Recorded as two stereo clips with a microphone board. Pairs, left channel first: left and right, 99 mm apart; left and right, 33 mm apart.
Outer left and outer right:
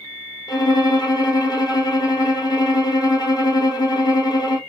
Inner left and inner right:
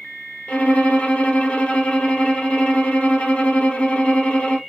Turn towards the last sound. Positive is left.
turn(degrees=45)  # may be behind; listen again after turning